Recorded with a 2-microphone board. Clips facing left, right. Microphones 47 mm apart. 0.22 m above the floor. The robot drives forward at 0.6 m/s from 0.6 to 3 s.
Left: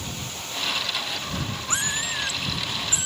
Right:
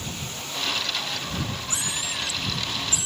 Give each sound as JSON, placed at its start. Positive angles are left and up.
{"t": 1.7, "sound": "a cat meowing", "side_deg": 45}